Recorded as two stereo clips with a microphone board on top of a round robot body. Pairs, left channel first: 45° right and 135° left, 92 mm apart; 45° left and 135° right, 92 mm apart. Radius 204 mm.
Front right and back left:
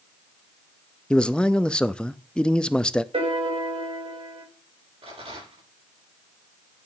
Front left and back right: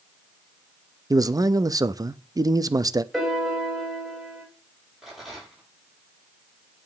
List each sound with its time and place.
1.1 s a man speaking: 120° right, 0.7 m
3.1 s a piano: 135° left, 3 m
5.0 s a rattle: 135° left, 8 m